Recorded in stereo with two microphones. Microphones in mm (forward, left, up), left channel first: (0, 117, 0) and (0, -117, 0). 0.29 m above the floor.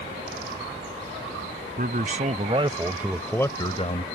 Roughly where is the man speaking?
Right.